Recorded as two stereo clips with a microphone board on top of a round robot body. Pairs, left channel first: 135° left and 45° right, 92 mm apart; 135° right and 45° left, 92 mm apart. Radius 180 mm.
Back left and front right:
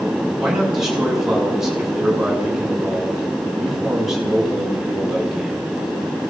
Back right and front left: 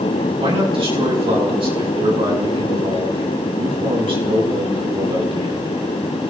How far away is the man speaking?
About 8 m.